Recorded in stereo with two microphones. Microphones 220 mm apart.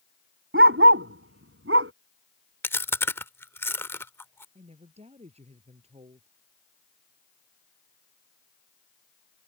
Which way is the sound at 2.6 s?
10° left (ahead or behind).